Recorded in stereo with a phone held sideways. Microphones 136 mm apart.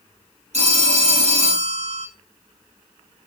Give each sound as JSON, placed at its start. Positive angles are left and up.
{"t": 0.5, "sound": "a phone ringing", "side_deg": -60, "distance_m": 1.1}